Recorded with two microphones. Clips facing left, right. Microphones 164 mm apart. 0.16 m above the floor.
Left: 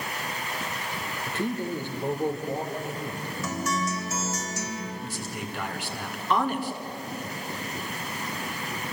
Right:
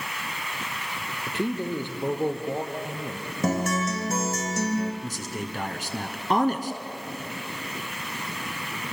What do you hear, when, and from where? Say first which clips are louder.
1.3 s a man speaking: right 2 dB; 20° right (ahead or behind), 2.5 m
3.4 s a guitar: right 5 dB; 55° right (ahead or behind), 3 m
5.0 s a man speaking: right 2 dB; 45° right (ahead or behind), 2 m